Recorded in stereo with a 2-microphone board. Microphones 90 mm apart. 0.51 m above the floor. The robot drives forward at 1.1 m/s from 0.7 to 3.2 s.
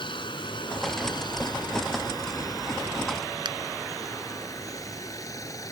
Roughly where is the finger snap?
Right.